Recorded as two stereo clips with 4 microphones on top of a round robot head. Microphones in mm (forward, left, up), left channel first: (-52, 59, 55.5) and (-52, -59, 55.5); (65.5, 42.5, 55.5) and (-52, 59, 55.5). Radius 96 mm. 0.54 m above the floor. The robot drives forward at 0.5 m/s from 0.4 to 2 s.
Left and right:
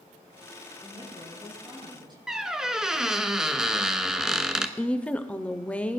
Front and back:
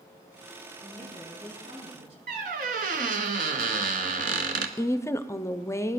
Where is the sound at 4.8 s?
20° left, 0.7 m.